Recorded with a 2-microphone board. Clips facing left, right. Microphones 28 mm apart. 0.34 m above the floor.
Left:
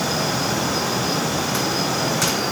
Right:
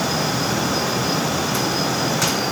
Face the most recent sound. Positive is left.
No sound to turn to.